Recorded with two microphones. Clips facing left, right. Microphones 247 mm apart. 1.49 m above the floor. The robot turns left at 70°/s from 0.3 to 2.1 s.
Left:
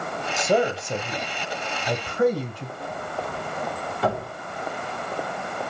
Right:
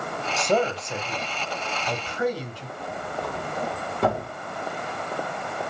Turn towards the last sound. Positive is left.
turn(degrees=-50)  # may be behind; listen again after turning